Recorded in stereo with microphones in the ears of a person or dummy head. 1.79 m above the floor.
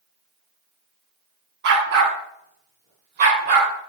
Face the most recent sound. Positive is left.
turn(degrees=-40)  # may be behind; listen again after turning